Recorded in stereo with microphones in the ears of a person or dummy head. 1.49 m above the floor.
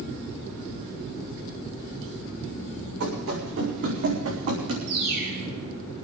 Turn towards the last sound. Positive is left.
turn(degrees=-50)  # may be behind; listen again after turning